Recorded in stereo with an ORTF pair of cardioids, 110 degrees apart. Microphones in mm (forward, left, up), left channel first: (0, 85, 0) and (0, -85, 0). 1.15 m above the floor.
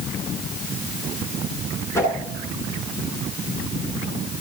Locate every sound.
1.9 s a whoosh: 15° left, 9.5 m